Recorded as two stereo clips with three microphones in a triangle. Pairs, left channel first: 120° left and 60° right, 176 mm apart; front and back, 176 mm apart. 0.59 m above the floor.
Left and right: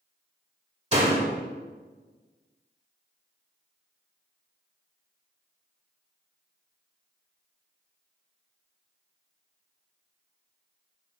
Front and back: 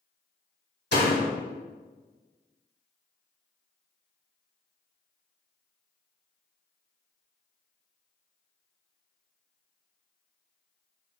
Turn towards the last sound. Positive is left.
turn(degrees=-10)